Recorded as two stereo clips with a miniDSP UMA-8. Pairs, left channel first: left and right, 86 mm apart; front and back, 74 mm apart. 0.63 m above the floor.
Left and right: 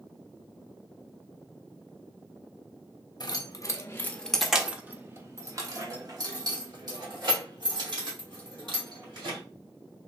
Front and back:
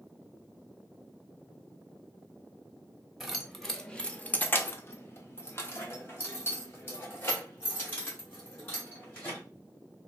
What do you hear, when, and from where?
3.2 s keys jangling: 95° left, 0.8 m; by 9.4 s 60° right, 2.5 m